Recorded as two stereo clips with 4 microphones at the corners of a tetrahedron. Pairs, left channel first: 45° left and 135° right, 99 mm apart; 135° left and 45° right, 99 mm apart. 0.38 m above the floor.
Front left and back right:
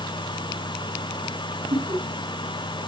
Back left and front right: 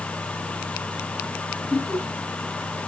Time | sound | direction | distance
1.7 | laughter | 145° right | 9.5 m